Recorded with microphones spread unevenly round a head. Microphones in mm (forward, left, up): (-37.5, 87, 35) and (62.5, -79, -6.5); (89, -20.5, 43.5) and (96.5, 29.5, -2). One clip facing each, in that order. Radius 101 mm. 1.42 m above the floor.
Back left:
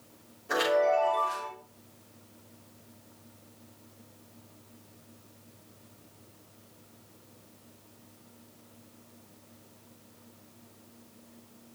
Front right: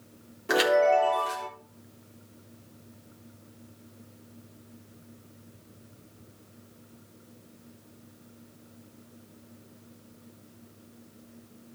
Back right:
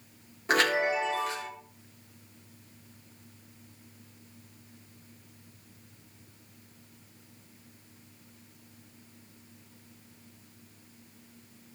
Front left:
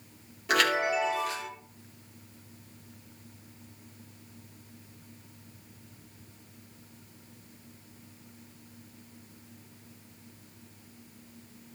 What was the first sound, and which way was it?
A chime, 65° right.